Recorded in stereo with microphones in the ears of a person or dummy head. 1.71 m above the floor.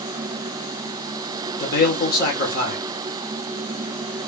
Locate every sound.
1.6 s a man speaking: 55° left (ahead or behind), 1.5 m